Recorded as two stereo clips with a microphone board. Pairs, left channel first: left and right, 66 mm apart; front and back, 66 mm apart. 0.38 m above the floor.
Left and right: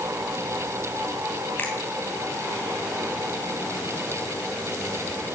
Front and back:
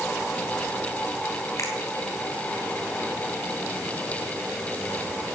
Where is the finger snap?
30° left, 2.5 m.